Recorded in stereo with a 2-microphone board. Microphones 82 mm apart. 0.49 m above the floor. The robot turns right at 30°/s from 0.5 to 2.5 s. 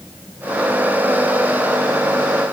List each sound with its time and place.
Only background noise.